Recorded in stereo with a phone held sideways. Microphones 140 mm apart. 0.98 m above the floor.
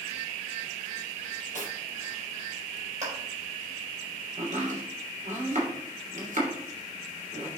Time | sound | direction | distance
1.5 | cutlery clinking | 70° right (ahead or behind) | 4 m
3.0 | a clap | 55° right (ahead or behind) | 4.5 m
4.4 | chopping | 60° right (ahead or behind) | 3 m